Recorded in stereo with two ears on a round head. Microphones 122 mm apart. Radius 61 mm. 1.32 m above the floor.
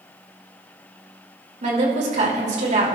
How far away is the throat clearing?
No throat clearing in this recording.